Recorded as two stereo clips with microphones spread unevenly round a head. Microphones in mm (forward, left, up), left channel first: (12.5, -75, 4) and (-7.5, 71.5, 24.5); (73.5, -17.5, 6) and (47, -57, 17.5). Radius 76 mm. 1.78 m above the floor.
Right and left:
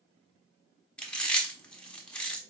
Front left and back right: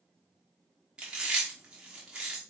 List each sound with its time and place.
1.0 s chewing: 170° right, 0.8 m